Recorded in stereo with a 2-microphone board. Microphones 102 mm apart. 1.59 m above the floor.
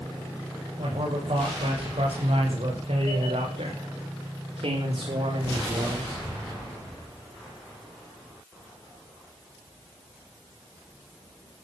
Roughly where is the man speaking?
Right.